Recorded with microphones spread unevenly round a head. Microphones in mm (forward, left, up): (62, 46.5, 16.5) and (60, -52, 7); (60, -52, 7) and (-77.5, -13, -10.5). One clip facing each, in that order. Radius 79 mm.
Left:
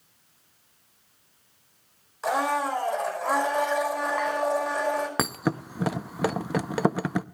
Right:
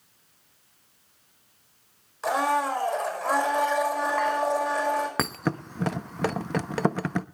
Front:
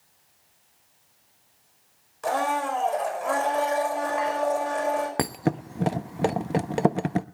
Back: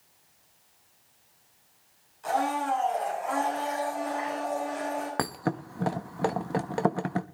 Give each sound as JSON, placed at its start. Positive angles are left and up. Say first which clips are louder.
{"t": 2.2, "sound": "a blender", "louder": "right 1 dB, front 2 dB", "azimuth_deg": 0, "distance_m": 5.0}
{"t": 5.2, "sound": "a thud", "louder": "left 1 dB, front 4 dB", "azimuth_deg": 20, "distance_m": 0.5}